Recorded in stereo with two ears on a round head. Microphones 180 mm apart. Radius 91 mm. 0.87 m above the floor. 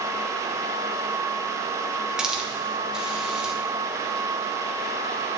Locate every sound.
2.2 s a hiss: 5° right (ahead or behind), 1.0 m